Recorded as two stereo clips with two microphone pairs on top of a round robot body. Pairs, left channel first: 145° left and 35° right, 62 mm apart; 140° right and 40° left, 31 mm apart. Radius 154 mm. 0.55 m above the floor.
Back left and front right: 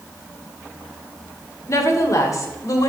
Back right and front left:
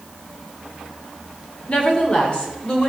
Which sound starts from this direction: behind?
A woman speaking, at 1.7 s.